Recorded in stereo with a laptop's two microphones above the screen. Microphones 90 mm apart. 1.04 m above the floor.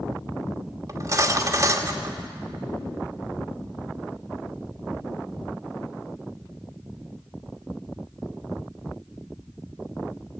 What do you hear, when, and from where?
0.9 s cutlery clinking: 35° right (ahead or behind), 1.3 m